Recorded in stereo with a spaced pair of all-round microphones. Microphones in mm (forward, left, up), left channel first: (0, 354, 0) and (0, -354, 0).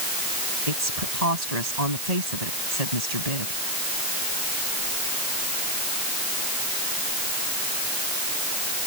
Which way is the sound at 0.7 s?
65° right (ahead or behind).